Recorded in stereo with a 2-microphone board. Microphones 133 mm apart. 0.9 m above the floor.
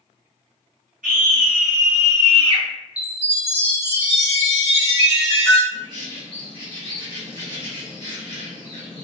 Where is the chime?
50° right (ahead or behind), 1.5 m.